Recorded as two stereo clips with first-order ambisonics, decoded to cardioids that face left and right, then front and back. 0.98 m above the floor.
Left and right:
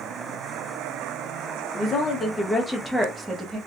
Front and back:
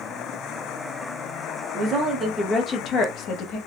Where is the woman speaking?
145° left, 0.6 m; by 3.6 s 15° right, 0.8 m.